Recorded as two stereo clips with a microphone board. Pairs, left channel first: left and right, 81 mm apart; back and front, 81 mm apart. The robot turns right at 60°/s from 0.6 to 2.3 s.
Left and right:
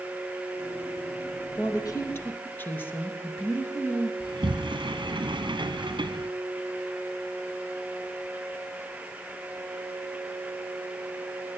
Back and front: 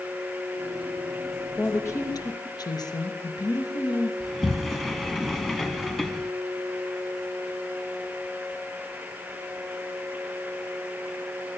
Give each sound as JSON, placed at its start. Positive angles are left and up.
{"t": 1.6, "sound": "a woman speaking", "azimuth_deg": 110, "distance_m": 2.5}
{"t": 4.2, "sound": "a sliding door", "azimuth_deg": -95, "distance_m": 1.1}